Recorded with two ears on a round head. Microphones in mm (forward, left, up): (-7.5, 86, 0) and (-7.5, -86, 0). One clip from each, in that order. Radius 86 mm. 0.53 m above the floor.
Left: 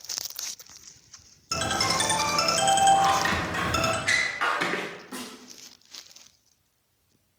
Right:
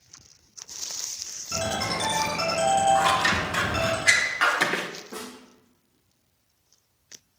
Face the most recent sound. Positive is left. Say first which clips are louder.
# right 1 dB
turn(degrees=30)  # may be behind; listen again after turning